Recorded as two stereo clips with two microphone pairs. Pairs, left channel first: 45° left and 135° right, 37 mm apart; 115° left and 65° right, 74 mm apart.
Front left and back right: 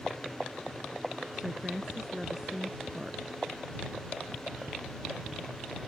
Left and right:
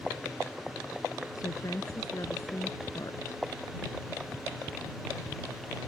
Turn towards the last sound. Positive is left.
turn(degrees=155)